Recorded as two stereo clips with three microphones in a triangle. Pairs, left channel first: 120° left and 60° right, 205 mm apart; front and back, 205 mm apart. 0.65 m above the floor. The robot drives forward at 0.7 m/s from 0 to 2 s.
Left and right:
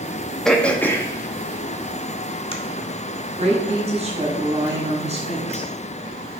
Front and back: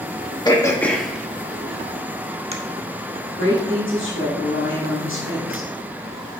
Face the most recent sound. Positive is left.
turn(degrees=-5)